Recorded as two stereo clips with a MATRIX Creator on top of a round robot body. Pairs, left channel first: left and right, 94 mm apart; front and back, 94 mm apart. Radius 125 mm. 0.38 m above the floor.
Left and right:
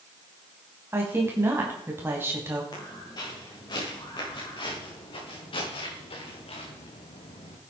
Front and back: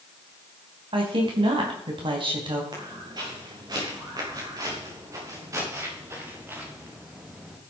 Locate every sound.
0.9 s a woman speaking: 155° right, 3.5 m
2.7 s footsteps: 140° left, 7.5 m; by 7.6 s 95° left, 3.5 m